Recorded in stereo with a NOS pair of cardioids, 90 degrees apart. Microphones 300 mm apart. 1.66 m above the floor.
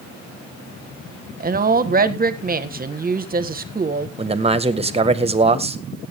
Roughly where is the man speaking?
Ahead.